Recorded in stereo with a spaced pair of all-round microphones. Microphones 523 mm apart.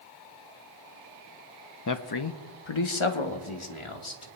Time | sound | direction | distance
1.9 | a man speaking | 35° left (ahead or behind) | 0.6 m